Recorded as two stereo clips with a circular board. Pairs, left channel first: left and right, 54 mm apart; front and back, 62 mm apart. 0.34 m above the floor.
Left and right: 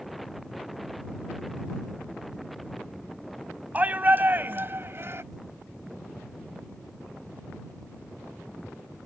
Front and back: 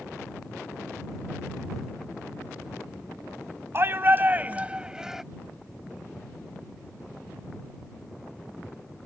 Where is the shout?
140° right; by 5.2 s 95° right.